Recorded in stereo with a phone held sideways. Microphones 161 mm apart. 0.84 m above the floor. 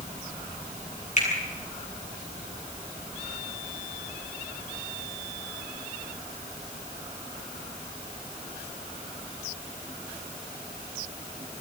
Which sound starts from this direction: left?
A finger snap, at 1.2 s.